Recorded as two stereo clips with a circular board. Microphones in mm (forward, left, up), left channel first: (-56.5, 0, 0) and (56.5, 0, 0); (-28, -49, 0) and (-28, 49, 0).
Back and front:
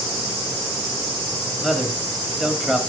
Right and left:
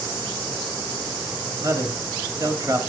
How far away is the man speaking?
About 1.7 m.